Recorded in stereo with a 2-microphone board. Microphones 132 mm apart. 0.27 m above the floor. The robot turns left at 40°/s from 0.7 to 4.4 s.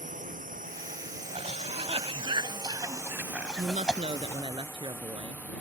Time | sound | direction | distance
0.0 | a drone | 70° right (ahead or behind) | ?
1.3 | a cough | 50° right (ahead or behind) | ?
3.6 | a woman speaking | 105° right | ?